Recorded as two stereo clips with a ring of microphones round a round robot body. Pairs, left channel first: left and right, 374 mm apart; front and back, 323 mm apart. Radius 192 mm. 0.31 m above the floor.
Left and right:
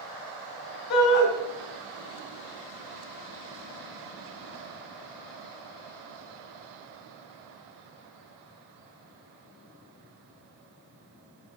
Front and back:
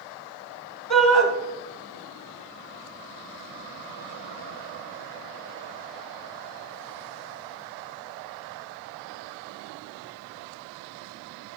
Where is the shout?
70° left, 2.5 m.